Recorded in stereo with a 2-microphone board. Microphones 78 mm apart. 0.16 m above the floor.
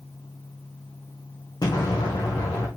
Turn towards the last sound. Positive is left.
turn(degrees=55)  # may be behind; listen again after turning